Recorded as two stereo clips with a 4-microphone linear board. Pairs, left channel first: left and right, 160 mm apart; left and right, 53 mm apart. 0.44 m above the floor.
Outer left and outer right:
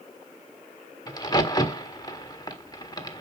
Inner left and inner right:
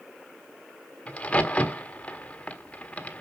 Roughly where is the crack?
Left.